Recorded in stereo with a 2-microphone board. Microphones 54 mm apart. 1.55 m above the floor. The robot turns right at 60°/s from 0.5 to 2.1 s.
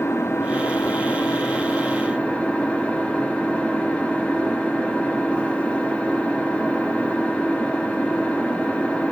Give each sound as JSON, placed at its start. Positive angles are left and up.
{"t": 0.0, "sound": "an engine running", "azimuth_deg": 60, "distance_m": 3.0}